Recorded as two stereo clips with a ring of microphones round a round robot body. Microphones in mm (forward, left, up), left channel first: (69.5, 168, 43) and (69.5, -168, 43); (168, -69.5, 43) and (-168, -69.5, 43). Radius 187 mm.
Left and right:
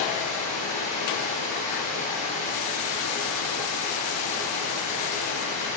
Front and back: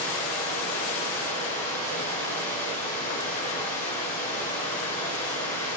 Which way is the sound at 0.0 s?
50° left.